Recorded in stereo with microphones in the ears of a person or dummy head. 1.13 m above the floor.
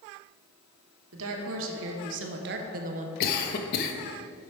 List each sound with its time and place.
1.1 s a woman speaking: 75° right (ahead or behind), 1.5 m; by 3.1 s 35° right (ahead or behind), 0.7 m
3.2 s a cough: 55° left (ahead or behind), 0.9 m